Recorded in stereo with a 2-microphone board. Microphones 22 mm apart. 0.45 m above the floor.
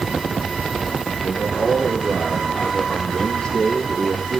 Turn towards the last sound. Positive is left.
turn(degrees=55)  # may be behind; listen again after turning